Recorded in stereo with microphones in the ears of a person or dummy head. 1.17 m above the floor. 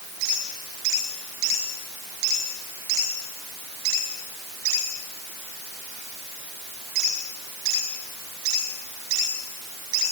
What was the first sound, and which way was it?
Only background noise.